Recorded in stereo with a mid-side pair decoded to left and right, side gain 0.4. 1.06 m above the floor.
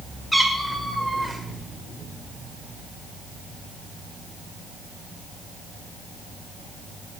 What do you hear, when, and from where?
0.3 s a cat meowing: 5° right, 1.5 m